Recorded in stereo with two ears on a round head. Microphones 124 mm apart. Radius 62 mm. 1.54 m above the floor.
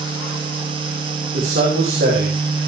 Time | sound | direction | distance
1.3 | a man speaking | 85° right | 5 m